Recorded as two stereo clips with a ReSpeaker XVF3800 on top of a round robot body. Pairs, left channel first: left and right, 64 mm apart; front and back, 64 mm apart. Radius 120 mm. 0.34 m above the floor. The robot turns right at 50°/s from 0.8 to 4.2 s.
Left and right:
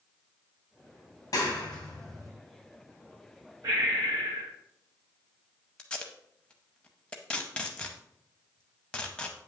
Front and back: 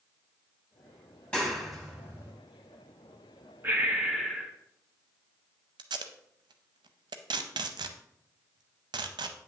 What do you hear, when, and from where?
1.3 s a clap: 70° left, 2 m; by 2.3 s 120° left, 2 m
3.6 s breathing: 125° right, 1.1 m; by 4.5 s 95° right, 1.1 m
5.8 s tape being pulled: 170° left, 0.5 m